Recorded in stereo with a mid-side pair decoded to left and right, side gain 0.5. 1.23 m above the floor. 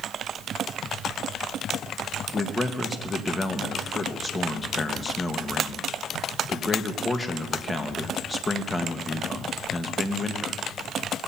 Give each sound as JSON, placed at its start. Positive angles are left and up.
{"t": 2.3, "sound": "a man speaking", "azimuth_deg": 25, "distance_m": 1.6}